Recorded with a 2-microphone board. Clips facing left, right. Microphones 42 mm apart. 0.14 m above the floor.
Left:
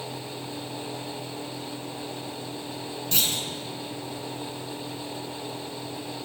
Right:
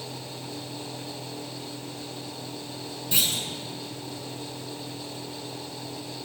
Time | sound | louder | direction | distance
3.1 | a clunk | right 1 dB | 10° right (ahead or behind) | 0.7 m